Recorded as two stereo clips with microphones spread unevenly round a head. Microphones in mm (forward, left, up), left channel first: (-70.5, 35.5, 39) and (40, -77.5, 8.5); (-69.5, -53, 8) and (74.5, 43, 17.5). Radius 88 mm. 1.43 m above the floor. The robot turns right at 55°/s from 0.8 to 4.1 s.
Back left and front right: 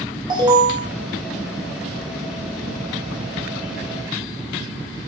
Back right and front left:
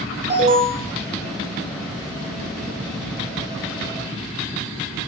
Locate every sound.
0.3 s an alarm: 5° right, 1.2 m